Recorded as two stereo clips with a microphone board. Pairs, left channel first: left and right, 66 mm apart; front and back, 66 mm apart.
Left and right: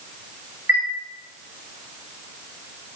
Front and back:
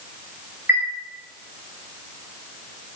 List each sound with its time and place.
0.7 s a chime: 130° right, 0.8 m